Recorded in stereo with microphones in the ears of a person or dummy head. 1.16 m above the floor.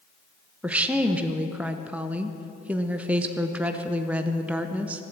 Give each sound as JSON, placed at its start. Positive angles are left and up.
{"t": 0.6, "sound": "a woman speaking", "side_deg": -10, "distance_m": 0.6}